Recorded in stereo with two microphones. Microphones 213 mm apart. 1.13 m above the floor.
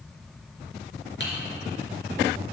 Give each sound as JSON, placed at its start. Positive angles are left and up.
{"t": 1.2, "sound": "typing on a keyboard", "side_deg": 60, "distance_m": 3.0}